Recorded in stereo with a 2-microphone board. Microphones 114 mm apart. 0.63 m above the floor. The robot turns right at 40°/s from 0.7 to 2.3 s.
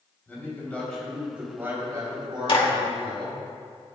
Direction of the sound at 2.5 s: 50° left (ahead or behind).